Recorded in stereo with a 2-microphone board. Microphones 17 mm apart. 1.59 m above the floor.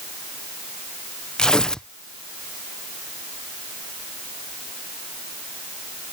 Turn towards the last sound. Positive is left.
turn(degrees=55)  # may be behind; listen again after turning